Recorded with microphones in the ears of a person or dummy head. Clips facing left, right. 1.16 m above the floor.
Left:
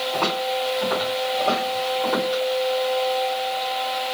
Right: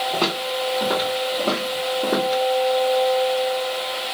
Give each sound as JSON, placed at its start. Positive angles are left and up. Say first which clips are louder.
{"t": 0.1, "sound": "footsteps", "louder": "even", "side_deg": -55, "distance_m": 1.8}